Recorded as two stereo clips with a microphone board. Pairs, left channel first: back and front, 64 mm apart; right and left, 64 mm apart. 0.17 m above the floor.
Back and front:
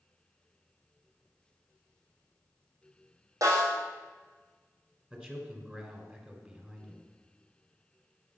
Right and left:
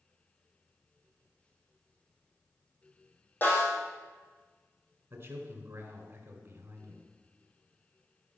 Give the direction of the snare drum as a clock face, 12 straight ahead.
1 o'clock.